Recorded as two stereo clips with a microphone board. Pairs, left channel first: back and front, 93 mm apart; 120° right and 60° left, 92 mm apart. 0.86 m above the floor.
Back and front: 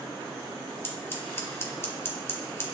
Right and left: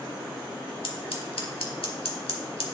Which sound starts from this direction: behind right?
Scissors, at 0.8 s.